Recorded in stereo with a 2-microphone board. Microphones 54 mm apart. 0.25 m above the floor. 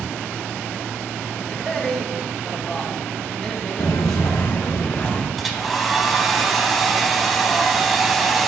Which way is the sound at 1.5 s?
10° left (ahead or behind).